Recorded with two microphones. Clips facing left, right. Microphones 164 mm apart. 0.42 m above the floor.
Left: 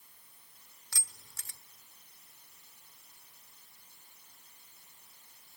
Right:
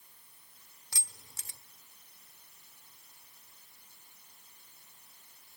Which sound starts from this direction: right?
Keys jangling, at 0.9 s.